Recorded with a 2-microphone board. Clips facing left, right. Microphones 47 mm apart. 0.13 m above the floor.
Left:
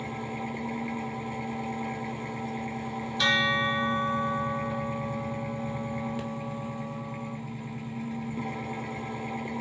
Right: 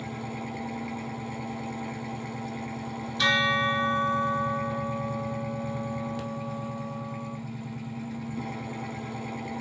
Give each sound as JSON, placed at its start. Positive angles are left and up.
{"t": 0.0, "sound": "an engine running", "side_deg": 15, "distance_m": 0.8}
{"t": 3.2, "sound": "a bell", "side_deg": 0, "distance_m": 0.9}